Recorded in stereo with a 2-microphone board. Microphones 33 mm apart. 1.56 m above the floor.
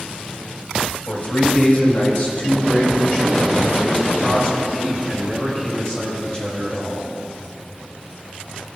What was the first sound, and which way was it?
A man speaking, 55° left (ahead or behind).